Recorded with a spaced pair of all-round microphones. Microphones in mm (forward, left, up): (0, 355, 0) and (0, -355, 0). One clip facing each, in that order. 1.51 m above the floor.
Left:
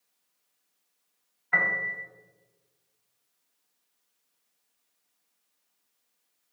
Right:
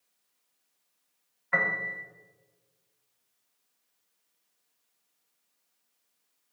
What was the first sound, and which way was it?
A piano, 10° right (ahead or behind).